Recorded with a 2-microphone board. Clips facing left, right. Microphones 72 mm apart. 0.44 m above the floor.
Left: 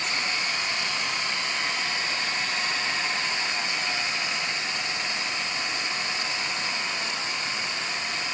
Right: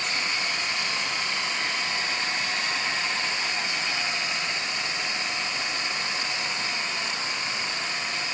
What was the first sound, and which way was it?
Only background noise.